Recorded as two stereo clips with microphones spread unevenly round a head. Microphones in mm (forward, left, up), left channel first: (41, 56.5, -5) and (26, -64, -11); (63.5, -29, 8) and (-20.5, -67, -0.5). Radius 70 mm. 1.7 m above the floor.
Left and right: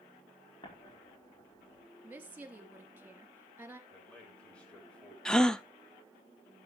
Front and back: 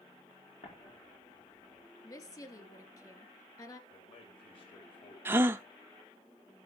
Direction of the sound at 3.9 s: 5° left.